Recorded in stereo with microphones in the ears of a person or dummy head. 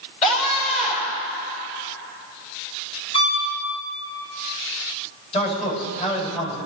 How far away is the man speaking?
About 5 m.